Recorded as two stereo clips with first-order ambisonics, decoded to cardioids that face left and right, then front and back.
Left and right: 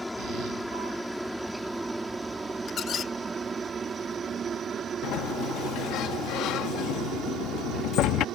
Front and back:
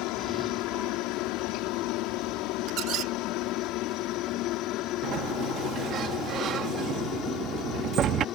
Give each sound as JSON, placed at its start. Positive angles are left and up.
{"t": 0.0, "sound": "a helicopter", "azimuth_deg": 5}
{"t": 2.7, "sound": "a squeak", "azimuth_deg": 145}
{"t": 5.0, "sound": "a sliding door", "azimuth_deg": 130}